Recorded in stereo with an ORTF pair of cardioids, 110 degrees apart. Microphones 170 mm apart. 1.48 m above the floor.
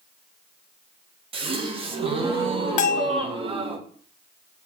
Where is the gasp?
35° right, 1.0 m.